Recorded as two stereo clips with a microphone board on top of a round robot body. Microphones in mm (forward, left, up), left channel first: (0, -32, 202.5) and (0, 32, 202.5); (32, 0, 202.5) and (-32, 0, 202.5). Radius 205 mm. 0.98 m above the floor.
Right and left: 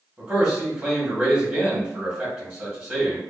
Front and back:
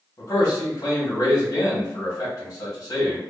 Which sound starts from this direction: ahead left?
A man speaking, at 0.2 s.